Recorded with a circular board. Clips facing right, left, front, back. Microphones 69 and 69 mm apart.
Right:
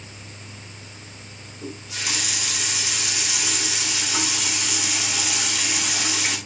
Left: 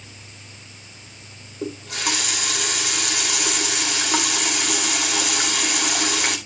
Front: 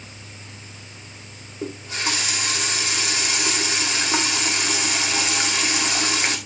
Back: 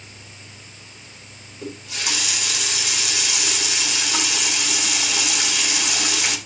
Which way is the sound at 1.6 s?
55° left.